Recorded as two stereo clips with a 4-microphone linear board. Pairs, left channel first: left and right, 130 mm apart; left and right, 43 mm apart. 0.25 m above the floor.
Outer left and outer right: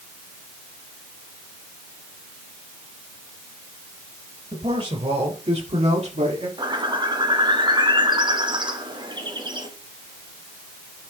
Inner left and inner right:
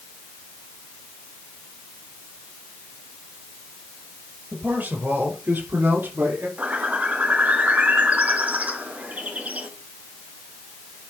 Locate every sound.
4.5 s a man speaking: 45° right (ahead or behind), 4.5 m; by 6.5 s 60° right (ahead or behind), 5 m
6.6 s a bird: 35° right (ahead or behind), 1.7 m